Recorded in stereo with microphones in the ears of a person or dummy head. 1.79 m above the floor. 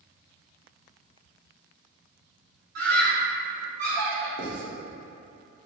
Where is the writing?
75° right (ahead or behind), 1.6 m.